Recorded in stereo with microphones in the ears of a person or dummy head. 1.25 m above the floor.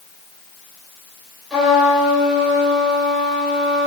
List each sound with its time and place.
1.5 s a trumpet: centre (ahead or behind), 5 m